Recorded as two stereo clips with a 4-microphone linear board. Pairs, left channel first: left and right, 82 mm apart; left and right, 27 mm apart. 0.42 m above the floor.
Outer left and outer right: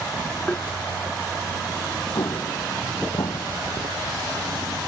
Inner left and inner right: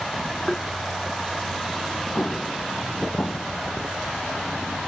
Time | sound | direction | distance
0.5 | tapping | 20° left (ahead or behind) | ?
2.1 | an explosion | 60° left (ahead or behind) | ?